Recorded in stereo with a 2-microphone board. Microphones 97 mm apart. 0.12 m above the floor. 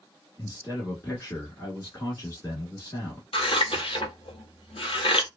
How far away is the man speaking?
About 1.2 m.